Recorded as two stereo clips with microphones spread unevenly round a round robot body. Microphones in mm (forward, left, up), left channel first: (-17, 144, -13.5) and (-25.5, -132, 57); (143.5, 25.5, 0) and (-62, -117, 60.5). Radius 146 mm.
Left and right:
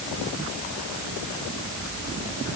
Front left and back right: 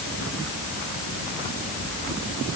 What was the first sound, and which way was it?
Only background noise.